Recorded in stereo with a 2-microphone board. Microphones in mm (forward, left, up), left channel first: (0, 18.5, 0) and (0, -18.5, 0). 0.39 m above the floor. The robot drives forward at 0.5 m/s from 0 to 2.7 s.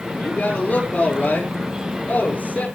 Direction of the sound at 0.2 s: 45° left (ahead or behind).